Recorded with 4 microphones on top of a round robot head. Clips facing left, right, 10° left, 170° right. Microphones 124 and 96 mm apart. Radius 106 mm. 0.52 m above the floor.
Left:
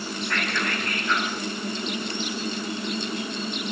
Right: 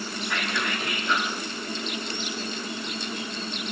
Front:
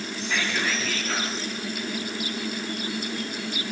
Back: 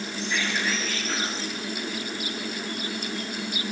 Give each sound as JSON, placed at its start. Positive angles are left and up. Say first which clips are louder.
{"t": 0.2, "sound": "whispering", "louder": "left 1 dB, front 1 dB", "azimuth_deg": -5, "distance_m": 5.5}